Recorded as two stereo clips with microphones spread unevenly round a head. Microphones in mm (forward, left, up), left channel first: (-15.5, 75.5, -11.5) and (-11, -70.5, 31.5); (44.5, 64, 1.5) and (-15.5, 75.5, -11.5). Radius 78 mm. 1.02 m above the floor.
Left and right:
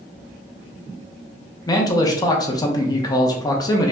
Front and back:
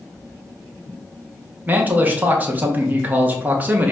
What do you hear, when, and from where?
1.7 s a man speaking: 130° left, 1.0 m